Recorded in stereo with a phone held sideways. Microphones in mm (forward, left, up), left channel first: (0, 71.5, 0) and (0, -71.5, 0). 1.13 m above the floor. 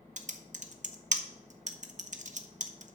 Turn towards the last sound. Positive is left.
turn(degrees=-55)  # may be behind; listen again after turning